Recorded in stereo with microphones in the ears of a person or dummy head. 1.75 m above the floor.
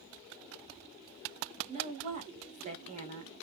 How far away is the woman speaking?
About 0.9 m.